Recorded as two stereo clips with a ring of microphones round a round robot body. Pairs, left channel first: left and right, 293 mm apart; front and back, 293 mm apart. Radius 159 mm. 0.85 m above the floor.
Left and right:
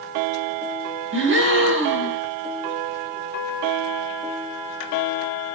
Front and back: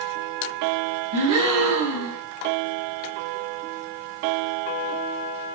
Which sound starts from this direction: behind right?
A gasp, at 1.1 s.